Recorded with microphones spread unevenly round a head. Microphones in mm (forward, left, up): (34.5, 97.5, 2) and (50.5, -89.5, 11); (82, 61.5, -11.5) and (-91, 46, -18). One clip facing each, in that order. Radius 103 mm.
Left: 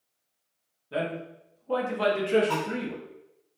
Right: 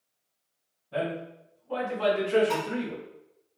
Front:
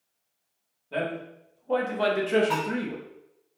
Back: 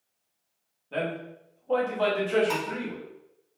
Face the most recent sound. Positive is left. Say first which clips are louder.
# even, front 1 dB
turn(degrees=-155)